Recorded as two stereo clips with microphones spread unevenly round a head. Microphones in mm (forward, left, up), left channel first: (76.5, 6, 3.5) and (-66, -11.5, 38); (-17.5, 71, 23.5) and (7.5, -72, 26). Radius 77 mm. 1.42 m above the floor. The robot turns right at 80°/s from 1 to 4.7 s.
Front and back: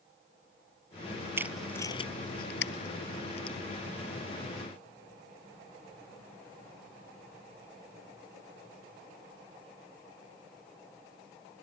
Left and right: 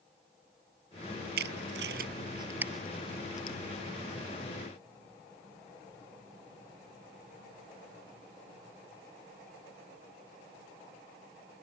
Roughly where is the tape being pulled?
Right.